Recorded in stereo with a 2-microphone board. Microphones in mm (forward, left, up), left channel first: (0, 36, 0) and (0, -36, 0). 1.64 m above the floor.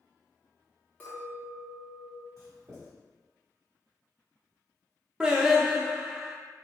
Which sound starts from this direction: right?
Writing, at 2.4 s.